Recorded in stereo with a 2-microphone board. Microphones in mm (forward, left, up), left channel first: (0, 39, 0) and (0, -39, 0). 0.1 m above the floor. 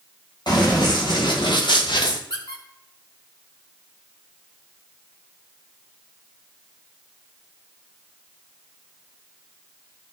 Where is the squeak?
85° left, 2 m.